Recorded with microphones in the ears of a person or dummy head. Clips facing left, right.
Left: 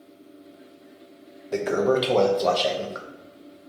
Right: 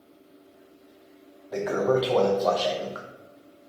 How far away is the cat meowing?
I don't hear a cat meowing.